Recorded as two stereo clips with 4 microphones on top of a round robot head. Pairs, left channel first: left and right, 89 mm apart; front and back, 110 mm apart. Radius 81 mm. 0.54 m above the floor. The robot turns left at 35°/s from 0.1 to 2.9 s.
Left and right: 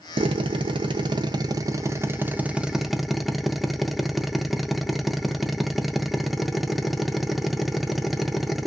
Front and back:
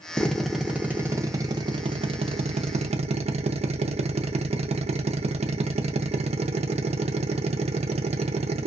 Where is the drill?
80° right, 0.6 m; by 8.7 s straight behind, 0.6 m.